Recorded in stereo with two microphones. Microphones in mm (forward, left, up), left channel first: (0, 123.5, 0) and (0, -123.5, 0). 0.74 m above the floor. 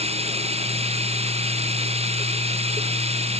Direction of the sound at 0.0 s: 25° right (ahead or behind).